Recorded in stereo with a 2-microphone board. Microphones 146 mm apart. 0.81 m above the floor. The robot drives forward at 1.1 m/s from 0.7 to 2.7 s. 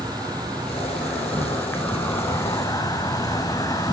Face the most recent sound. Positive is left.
turn(degrees=25)  # may be behind; listen again after turning